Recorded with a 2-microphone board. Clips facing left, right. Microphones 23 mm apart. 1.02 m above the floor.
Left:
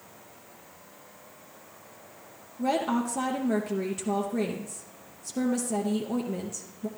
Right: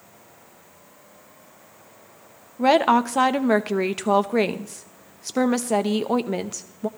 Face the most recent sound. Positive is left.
turn(degrees=-60)  # may be behind; listen again after turning